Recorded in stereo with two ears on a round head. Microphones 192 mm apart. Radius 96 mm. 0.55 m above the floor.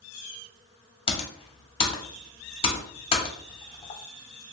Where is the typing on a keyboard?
25° left (ahead or behind), 0.6 m.